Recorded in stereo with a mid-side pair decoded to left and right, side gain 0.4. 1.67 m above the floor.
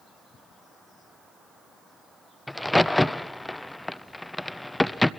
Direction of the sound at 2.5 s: 10° left.